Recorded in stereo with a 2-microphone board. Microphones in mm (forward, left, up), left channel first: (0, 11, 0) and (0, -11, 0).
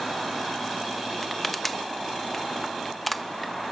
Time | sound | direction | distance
1.2 | crushing | 10° left (ahead or behind) | 0.8 m